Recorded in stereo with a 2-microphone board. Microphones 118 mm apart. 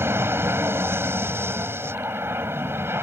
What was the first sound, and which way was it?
An aircraft, 20° right (ahead or behind).